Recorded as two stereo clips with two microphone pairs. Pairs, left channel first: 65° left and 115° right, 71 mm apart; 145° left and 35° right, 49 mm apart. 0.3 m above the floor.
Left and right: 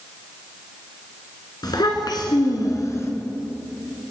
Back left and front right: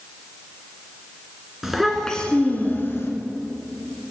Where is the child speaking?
50° left, 2 m; by 3.1 s 115° left, 2 m.